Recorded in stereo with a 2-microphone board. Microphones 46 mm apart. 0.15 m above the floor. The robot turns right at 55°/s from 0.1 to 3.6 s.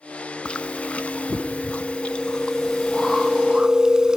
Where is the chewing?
40° left, 0.7 m; by 4.2 s 145° right, 0.7 m.